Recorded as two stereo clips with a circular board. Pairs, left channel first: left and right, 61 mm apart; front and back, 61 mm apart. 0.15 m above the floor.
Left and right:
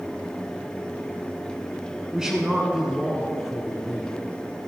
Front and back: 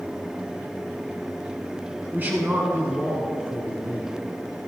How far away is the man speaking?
About 1.4 m.